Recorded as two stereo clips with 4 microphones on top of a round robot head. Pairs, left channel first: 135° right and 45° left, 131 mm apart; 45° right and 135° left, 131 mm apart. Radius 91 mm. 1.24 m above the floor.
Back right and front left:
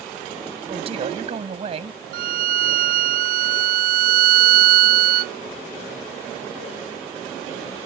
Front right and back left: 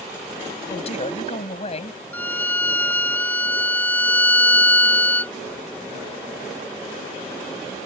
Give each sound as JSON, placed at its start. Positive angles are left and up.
{"t": 0.7, "sound": "a man speaking", "azimuth_deg": 0}
{"t": 2.1, "sound": "a violin", "azimuth_deg": 30}